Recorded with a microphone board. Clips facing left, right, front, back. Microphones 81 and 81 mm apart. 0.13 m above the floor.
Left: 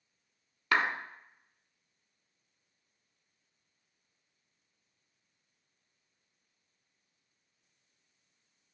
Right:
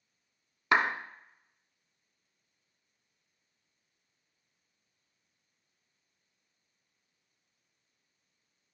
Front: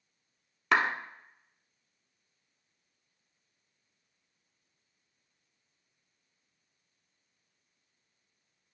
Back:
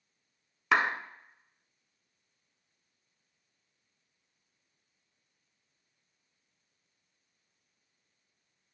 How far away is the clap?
About 0.9 m.